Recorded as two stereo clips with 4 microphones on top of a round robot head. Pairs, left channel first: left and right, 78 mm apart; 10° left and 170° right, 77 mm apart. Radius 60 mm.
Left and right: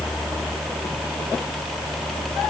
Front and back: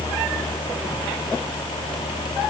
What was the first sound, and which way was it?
Only background noise.